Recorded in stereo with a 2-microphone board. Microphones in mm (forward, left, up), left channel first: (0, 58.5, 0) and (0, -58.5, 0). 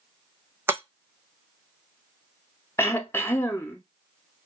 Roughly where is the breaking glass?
Right.